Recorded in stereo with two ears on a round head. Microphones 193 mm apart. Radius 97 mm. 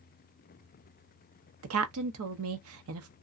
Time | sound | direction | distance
1.6 | a woman speaking | 70° right (ahead or behind) | 0.7 m